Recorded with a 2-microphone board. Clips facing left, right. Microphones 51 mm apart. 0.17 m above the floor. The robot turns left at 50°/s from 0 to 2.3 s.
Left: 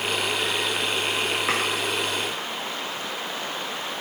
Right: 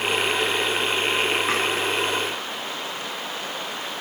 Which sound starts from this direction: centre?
Chopping, at 1.5 s.